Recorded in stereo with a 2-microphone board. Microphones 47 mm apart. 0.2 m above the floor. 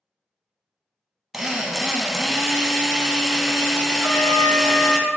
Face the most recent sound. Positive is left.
turn(degrees=30)  # may be behind; listen again after turning